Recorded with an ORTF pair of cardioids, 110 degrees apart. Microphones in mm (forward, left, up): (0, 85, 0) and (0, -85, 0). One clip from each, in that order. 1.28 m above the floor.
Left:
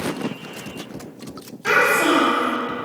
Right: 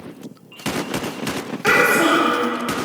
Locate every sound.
1.6 s a child speaking: 70° right, 1.5 m